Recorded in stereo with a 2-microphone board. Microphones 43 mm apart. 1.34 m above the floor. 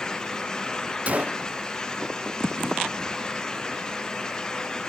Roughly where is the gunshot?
Right.